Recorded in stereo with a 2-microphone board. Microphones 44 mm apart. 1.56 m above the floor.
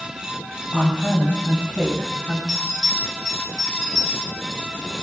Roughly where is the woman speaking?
Centre.